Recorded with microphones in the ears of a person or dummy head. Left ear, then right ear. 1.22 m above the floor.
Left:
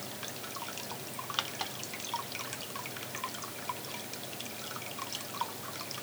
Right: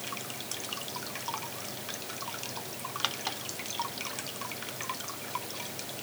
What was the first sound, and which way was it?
Only background noise.